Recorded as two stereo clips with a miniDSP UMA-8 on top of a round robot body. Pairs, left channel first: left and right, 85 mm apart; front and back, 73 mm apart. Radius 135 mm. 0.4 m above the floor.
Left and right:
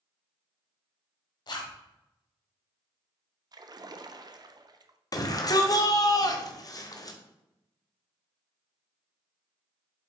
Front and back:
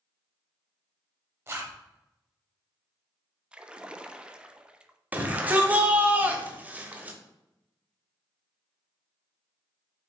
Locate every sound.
1.5 s a zipper: 125° left, 1.1 m
3.5 s a splash: 105° right, 0.5 m
5.1 s a shout: 120° left, 1.1 m